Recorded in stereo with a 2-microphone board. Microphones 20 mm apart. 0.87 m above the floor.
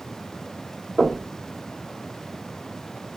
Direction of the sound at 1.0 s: 80° right.